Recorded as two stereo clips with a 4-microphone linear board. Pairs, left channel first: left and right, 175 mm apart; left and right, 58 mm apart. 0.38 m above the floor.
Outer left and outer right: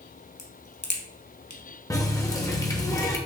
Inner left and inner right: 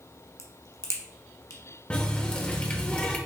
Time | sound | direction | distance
0.4 | a crack | 70° left (ahead or behind) | 0.8 m
1.9 | a running tap | 20° left (ahead or behind) | 0.6 m